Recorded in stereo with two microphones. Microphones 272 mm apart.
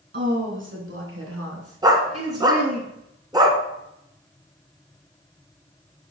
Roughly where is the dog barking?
Centre.